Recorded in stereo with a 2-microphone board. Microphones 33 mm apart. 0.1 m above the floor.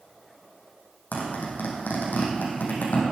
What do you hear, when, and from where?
1.1 s a zipper: 70° left (ahead or behind), 5 m